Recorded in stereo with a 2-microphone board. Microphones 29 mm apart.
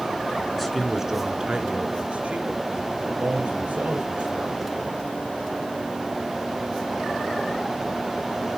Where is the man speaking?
5° left (ahead or behind), 1.1 m; by 4.9 s 75° right (ahead or behind), 3.5 m.